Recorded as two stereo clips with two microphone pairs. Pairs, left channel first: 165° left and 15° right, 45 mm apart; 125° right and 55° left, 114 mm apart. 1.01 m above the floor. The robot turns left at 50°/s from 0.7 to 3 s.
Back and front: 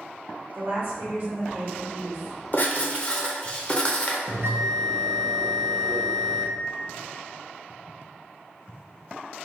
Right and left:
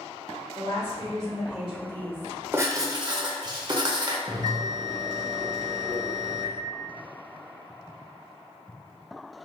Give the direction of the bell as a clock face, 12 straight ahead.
12 o'clock.